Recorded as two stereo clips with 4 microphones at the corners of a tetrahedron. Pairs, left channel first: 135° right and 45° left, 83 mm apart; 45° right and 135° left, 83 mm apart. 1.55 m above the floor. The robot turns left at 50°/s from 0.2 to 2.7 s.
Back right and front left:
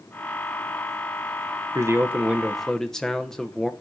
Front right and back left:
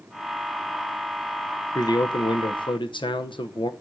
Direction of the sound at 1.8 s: 5° right.